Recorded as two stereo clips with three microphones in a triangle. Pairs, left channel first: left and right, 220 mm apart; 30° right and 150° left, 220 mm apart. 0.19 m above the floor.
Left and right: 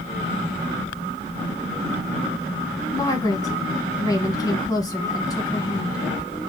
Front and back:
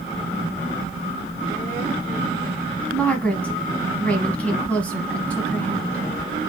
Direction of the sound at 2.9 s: 45° left.